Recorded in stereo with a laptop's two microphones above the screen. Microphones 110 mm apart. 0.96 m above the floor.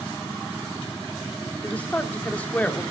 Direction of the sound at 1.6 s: 15° left (ahead or behind).